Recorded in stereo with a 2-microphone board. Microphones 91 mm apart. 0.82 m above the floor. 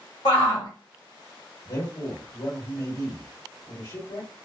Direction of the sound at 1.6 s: 55° left (ahead or behind).